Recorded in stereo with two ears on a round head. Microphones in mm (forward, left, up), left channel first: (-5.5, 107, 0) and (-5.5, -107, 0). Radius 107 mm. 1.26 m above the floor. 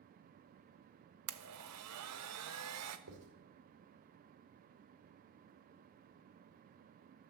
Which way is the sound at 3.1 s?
75° right (ahead or behind).